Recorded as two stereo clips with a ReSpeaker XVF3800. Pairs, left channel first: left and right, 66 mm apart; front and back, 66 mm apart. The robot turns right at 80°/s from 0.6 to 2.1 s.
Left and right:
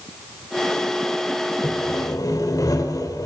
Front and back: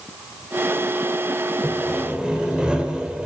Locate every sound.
1.6 s sawing: 65° left, 2 m; by 3.3 s 105° left, 2 m